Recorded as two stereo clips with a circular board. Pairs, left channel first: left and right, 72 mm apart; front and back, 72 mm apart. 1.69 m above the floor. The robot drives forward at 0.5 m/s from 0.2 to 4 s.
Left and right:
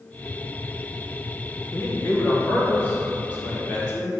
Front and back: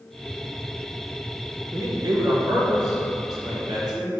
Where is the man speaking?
140° left, 1.2 m; by 4.1 s 160° left, 2 m.